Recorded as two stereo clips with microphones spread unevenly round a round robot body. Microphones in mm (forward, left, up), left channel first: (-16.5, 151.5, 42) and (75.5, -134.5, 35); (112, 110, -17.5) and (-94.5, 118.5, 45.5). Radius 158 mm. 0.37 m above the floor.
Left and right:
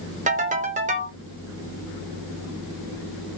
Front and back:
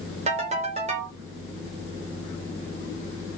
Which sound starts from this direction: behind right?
A ringtone, at 0.3 s.